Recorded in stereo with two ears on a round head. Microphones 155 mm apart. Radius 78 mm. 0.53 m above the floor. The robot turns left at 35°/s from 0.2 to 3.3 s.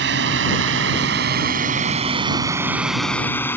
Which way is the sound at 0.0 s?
70° right (ahead or behind).